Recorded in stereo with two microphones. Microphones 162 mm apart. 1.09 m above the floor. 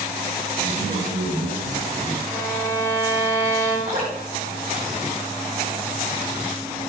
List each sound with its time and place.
0.6 s a man speaking: 75° right (ahead or behind), 4.5 m
2.3 s a violin: 20° right (ahead or behind), 4 m
3.9 s dripping: 55° right (ahead or behind), 3.5 m